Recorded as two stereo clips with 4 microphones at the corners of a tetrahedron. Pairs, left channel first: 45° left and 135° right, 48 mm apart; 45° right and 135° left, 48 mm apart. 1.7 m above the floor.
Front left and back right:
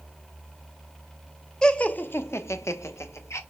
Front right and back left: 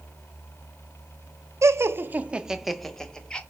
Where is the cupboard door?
I don't hear a cupboard door.